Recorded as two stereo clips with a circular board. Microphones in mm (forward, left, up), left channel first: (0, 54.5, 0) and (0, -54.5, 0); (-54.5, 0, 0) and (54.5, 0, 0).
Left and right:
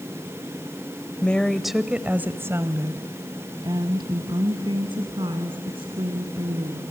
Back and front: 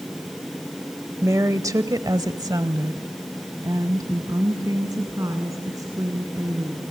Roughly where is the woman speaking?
Ahead left.